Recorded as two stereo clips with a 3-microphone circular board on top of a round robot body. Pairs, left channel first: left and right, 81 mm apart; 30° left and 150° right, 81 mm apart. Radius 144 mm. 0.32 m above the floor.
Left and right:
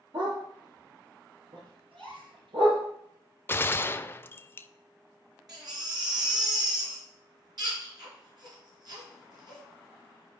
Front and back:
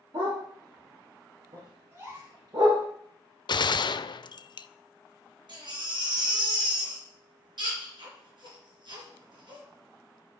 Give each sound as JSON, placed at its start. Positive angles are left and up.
{"t": 0.1, "sound": "a dog barking", "azimuth_deg": -115, "distance_m": 6.0}
{"t": 1.9, "sound": "a gasp", "azimuth_deg": -90, "distance_m": 4.0}
{"t": 3.5, "sound": "a gunshot", "azimuth_deg": 30, "distance_m": 0.5}
{"t": 5.5, "sound": "a baby crying", "azimuth_deg": -125, "distance_m": 4.0}